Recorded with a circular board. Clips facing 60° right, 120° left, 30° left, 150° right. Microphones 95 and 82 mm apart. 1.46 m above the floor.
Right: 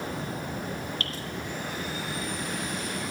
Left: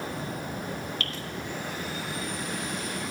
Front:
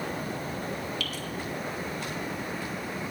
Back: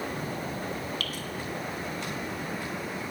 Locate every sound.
1.0 s dripping: 110° right, 1.4 m